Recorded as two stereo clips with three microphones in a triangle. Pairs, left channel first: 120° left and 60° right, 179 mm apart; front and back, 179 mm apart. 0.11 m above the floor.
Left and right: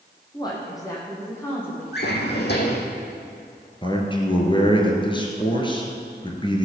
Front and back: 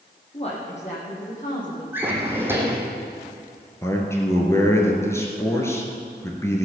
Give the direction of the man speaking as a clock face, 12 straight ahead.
10 o'clock.